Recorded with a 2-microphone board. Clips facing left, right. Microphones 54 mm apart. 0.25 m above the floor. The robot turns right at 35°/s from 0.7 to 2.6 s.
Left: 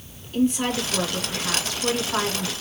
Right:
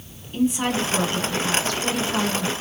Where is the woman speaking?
20° right, 2.5 m; by 2.5 s 45° left, 2.5 m.